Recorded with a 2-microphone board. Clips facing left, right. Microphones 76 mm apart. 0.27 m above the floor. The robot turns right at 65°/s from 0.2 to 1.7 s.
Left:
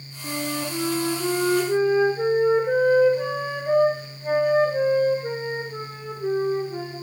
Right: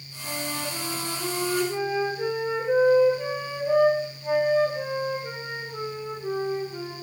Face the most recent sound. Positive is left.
turn(degrees=130)